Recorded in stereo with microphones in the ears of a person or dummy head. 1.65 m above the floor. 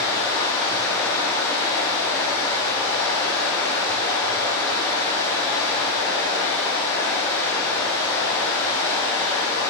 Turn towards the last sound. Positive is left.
turn(degrees=20)  # may be behind; listen again after turning